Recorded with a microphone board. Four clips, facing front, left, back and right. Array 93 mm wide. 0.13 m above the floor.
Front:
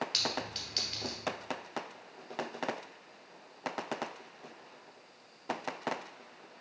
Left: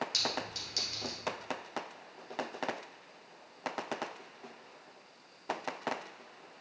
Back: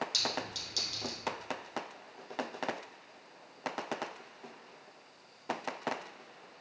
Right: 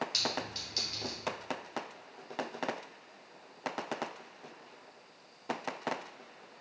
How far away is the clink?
About 1.3 m.